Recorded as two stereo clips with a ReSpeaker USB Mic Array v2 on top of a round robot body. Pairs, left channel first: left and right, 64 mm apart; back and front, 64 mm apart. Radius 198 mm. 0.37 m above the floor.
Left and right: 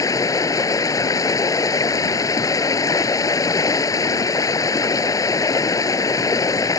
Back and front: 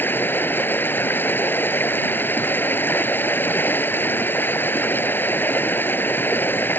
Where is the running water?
120° left.